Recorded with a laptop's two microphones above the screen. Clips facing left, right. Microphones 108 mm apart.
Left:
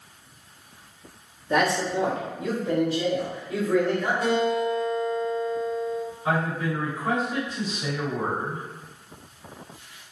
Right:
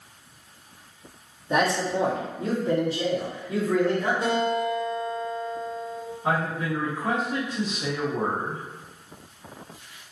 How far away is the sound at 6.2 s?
About 1.5 m.